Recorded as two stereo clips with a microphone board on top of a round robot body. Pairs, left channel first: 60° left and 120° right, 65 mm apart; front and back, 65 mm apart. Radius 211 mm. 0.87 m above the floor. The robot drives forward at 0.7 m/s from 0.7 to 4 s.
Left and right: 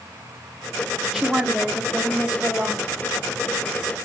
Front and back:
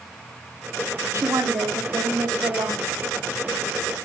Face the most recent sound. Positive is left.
turn(degrees=170)